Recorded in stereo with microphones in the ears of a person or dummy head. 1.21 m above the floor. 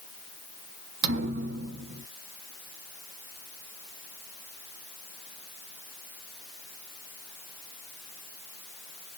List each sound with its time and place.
1.0 s a thud: 60° right (ahead or behind), 0.8 m